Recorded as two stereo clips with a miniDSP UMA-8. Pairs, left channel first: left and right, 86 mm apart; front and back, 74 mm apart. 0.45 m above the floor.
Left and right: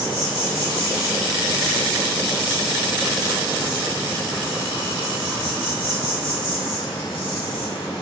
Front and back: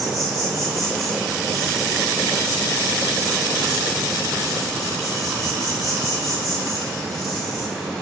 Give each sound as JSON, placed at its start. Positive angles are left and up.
{"t": 0.0, "sound": "an insect", "azimuth_deg": 90, "distance_m": 1.3}